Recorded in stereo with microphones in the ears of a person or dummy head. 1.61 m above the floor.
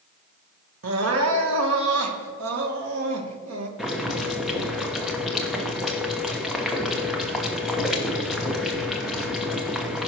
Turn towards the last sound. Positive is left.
turn(degrees=-5)  # may be behind; listen again after turning